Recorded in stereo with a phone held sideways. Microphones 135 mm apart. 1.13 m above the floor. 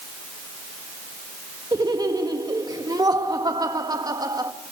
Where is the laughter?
30° right (ahead or behind), 1.9 m.